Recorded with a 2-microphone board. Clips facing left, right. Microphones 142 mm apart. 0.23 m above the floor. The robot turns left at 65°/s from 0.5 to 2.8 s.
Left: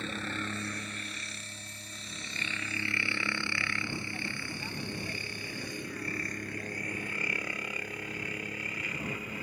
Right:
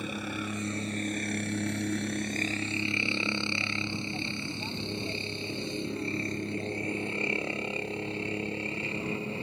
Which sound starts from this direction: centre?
A helicopter, at 0.0 s.